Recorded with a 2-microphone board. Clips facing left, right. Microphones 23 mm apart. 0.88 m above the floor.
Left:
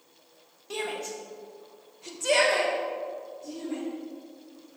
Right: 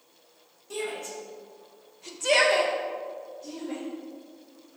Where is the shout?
35° left (ahead or behind), 1.3 m; by 3.8 s 40° right (ahead or behind), 1.5 m.